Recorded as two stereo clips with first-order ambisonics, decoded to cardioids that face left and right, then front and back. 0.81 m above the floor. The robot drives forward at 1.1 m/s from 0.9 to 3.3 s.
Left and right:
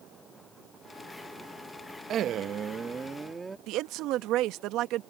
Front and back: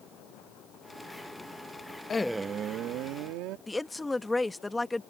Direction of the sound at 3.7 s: 80° right.